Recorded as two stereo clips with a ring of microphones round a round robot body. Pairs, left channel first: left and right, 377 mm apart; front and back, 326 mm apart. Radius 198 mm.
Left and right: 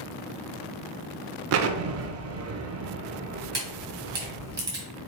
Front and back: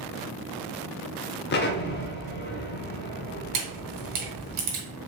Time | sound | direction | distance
1.5 | an explosion | 50° right | 0.5 m
3.5 | a camera shutter | 170° right | 2 m